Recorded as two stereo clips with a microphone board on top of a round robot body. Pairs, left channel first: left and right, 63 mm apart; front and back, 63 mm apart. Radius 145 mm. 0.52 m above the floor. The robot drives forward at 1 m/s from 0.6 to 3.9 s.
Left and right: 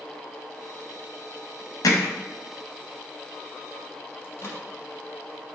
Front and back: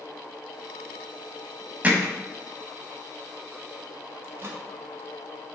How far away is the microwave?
About 1.9 m.